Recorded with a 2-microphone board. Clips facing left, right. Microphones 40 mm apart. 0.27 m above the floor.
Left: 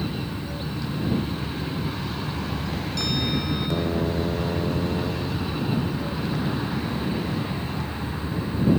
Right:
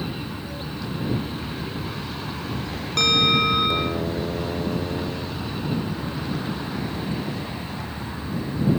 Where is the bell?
60° right (ahead or behind).